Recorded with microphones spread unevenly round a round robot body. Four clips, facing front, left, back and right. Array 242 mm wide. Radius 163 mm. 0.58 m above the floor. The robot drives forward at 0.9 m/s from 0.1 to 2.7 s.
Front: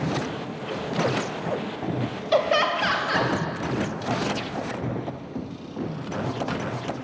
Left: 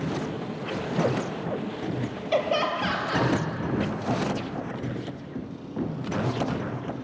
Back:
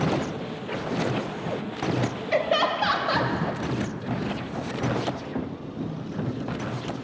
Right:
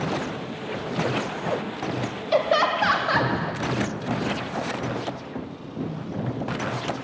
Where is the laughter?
40° right, 0.6 m; by 3.3 s 150° right, 0.6 m.